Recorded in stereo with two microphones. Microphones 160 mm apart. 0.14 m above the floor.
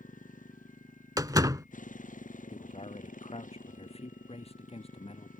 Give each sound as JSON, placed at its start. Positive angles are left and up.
{"t": 0.0, "sound": "a motorcycle", "side_deg": 60}
{"t": 1.2, "sound": "a door slam", "side_deg": -25}
{"t": 2.5, "sound": "a man speaking", "side_deg": 40}